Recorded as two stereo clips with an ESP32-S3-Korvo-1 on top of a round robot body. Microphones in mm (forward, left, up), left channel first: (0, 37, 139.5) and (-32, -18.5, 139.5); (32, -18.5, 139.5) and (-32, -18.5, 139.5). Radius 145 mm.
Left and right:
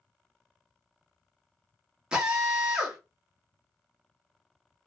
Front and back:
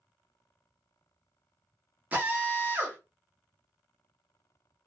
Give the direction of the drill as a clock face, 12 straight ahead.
6 o'clock.